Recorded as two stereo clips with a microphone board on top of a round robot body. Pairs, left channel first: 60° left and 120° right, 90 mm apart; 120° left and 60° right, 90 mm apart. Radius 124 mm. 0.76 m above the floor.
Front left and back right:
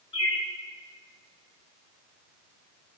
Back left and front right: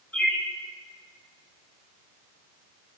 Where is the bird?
45° left, 1.4 m.